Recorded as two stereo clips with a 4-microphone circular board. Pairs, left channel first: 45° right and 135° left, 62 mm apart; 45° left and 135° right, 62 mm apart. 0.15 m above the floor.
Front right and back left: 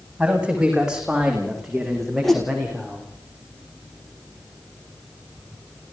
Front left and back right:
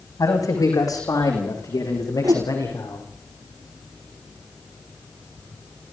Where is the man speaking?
65° left, 7 m; by 3.1 s 35° left, 8 m.